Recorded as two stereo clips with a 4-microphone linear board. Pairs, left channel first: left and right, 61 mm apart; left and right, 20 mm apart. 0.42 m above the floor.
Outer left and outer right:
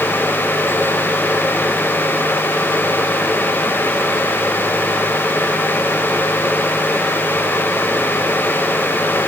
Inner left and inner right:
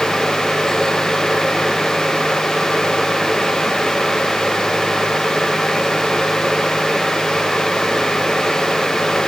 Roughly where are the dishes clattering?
I don't hear dishes clattering.